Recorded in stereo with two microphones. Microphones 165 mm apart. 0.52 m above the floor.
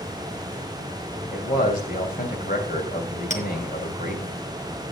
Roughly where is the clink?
Left.